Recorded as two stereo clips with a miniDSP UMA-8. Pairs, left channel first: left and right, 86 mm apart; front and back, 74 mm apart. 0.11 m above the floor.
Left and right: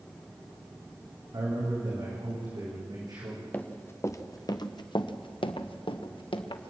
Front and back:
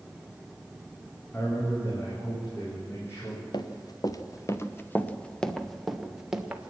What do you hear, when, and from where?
1.3 s a man speaking: 55° right, 5.5 m
3.5 s running footsteps: 20° left, 1.7 m; by 6.7 s 105° left, 2.5 m